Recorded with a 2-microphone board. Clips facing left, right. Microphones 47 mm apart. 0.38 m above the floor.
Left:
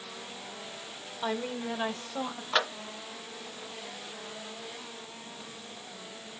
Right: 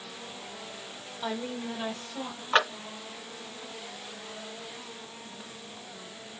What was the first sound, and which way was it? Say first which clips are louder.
A woman speaking: left 1 dB; 10° left (ahead or behind).